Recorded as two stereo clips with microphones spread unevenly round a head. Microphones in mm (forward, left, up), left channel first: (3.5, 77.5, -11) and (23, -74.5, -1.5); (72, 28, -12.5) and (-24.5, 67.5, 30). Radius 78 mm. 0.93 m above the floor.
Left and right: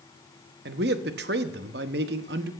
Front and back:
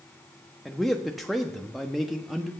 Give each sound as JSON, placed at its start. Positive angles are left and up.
{"t": 0.7, "sound": "a man speaking", "azimuth_deg": -105, "distance_m": 1.0}